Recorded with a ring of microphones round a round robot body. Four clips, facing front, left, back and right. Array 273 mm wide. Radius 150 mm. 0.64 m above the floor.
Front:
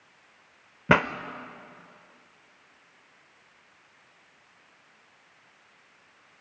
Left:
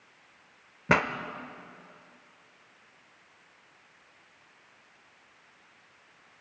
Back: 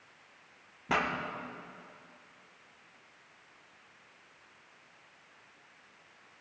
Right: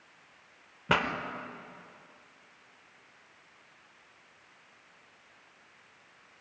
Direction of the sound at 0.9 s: 15° left.